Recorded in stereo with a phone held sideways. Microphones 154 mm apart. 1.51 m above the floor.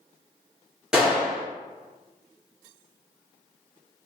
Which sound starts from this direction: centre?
A gunshot, at 0.9 s.